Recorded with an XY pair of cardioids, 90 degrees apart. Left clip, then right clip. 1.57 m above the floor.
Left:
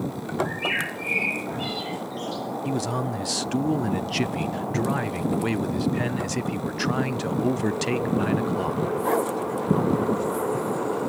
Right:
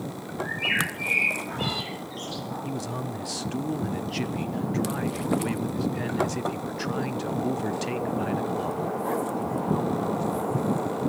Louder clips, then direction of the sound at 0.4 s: Even; 20° right.